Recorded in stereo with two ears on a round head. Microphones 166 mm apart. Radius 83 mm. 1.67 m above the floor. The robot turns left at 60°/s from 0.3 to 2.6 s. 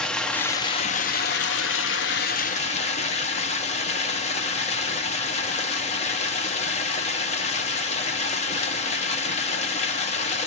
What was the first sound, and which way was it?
Running water, 175° left.